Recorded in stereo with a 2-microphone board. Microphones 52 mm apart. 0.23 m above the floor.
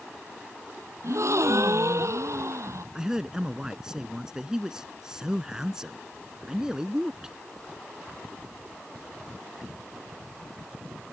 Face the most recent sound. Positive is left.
turn(degrees=-15)  # may be behind; listen again after turning